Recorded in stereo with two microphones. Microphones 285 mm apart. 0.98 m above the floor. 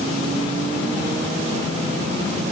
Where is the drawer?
No drawer in this recording.